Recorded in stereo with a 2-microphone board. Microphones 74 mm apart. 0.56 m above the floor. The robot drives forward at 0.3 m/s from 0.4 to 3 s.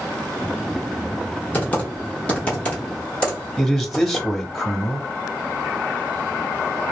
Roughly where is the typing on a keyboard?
Left.